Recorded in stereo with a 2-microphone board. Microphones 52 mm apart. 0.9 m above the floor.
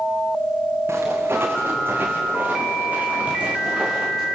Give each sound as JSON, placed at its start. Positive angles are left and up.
{"t": 0.9, "sound": "footsteps", "side_deg": -55, "distance_m": 5.0}